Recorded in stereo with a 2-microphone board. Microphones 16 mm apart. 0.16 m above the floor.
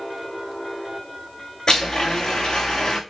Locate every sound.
1.7 s a blender: 55° left (ahead or behind), 3 m